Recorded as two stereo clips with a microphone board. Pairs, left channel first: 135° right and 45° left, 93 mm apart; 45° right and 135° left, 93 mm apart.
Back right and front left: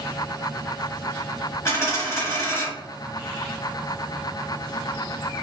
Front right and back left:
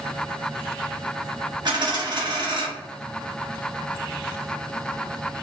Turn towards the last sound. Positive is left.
turn(degrees=170)